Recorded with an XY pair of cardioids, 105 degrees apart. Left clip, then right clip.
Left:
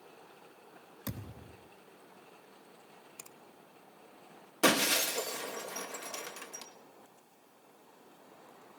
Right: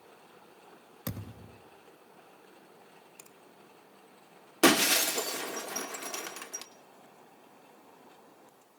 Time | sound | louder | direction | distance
1.1 | a thud | right 3 dB | 35° right | 4 m
3.2 | a finger snap | left 5 dB | 20° left | 1.5 m
4.6 | breaking glass | right 4 dB | 50° right | 2.5 m